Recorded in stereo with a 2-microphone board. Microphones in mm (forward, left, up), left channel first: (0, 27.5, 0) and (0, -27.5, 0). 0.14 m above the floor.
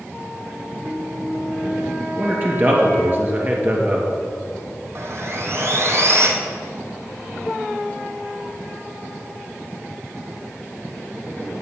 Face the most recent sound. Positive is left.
turn(degrees=-55)  # may be behind; listen again after turning